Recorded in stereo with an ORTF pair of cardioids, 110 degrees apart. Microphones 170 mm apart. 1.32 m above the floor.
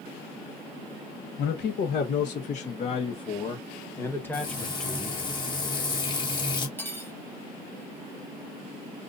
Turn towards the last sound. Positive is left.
turn(degrees=10)